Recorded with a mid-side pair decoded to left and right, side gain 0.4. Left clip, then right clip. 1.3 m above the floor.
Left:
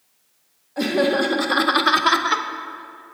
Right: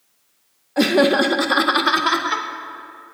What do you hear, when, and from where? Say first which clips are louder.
0.8 s laughter: right 4 dB; 55° right, 0.9 m; by 2.5 s 30° left, 1.0 m